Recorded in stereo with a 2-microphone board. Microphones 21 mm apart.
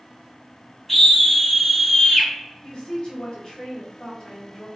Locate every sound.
0.9 s a scream: 5° left (ahead or behind), 1.3 m
2.6 s a woman speaking: 40° left (ahead or behind), 1.7 m